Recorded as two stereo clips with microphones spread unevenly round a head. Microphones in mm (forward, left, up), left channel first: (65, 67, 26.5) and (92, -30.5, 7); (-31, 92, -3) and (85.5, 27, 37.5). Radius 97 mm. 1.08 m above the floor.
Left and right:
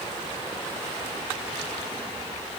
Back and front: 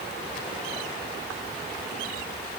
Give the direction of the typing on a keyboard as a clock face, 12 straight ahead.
I don't hear typing on a keyboard.